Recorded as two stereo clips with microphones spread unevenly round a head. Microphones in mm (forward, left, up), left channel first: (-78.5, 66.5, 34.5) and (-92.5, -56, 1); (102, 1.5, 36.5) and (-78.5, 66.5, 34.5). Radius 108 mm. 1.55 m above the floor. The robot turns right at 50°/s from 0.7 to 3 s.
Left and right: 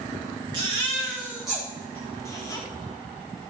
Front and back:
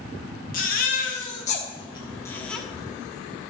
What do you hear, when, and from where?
0.5 s a baby crying: 30° right, 1.2 m; by 2.6 s 65° left, 1.2 m